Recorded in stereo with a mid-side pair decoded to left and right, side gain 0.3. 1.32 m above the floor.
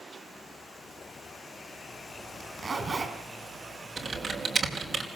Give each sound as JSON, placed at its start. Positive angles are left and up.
{"t": 2.4, "sound": "a zipper", "azimuth_deg": -55, "distance_m": 5.5}
{"t": 4.0, "sound": "typing on a keyboard", "azimuth_deg": -60, "distance_m": 5.0}